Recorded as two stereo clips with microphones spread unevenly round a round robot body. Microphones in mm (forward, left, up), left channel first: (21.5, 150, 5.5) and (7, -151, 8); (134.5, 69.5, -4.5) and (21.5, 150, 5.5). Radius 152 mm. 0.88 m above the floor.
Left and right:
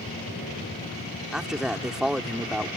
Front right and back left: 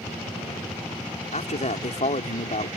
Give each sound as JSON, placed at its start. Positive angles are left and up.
{"t": 1.3, "sound": "a man speaking", "azimuth_deg": -5}